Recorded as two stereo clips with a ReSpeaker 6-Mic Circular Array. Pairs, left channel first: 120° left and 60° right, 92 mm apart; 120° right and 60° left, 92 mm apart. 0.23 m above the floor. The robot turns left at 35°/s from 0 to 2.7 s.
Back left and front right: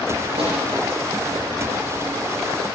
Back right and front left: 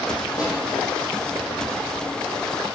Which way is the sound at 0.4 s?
70° right.